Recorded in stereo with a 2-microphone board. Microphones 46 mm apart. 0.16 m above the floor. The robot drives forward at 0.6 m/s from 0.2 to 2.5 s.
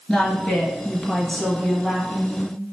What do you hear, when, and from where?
0.1 s a woman speaking: 10° left (ahead or behind), 1.2 m